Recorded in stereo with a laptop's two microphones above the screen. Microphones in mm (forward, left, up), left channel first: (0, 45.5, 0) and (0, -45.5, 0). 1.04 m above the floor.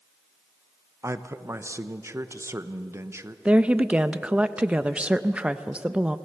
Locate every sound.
1.0 s a man speaking: 35° right (ahead or behind), 1.0 m
3.5 s a woman speaking: 15° right (ahead or behind), 0.6 m